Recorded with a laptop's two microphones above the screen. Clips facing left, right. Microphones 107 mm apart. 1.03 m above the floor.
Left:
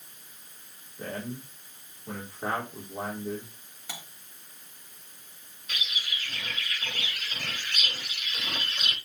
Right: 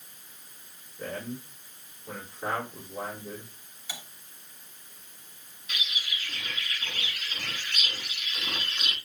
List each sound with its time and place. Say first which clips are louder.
1.0 s a man speaking: even; 25° left (ahead or behind), 3.5 m
3.9 s cutlery clinking: left 1 dB; 55° left (ahead or behind), 1.8 m
5.7 s a bird: even; 40° left (ahead or behind), 6.5 m